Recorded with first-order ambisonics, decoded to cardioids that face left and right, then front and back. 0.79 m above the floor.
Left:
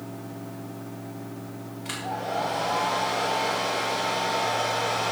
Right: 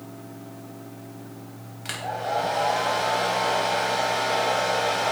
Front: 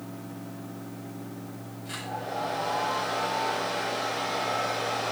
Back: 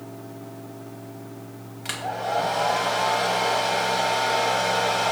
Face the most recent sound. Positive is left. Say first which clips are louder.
# right 2 dB, back 7 dB
turn(degrees=-145)